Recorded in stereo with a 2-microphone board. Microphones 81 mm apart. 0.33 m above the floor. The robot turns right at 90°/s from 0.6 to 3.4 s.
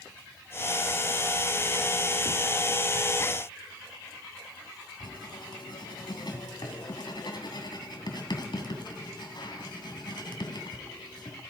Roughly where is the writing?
Left.